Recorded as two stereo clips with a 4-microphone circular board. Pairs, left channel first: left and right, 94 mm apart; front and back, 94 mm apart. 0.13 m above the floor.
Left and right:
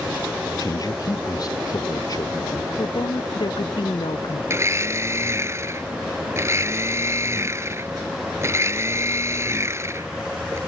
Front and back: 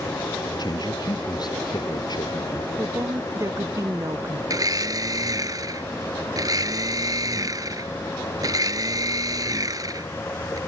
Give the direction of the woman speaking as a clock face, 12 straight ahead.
8 o'clock.